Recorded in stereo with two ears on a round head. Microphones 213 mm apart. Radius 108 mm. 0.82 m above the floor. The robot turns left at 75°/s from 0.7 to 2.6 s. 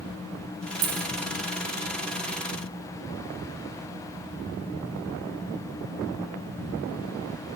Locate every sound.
0.8 s a dropped coin: 70° right (ahead or behind), 1.3 m; by 1.3 s 55° right (ahead or behind), 1.3 m